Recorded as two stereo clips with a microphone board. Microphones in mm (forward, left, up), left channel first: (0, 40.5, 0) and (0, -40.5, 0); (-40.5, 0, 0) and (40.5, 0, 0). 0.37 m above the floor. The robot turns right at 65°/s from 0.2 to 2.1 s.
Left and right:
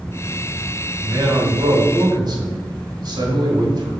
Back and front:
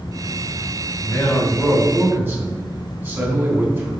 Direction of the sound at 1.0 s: 130° right.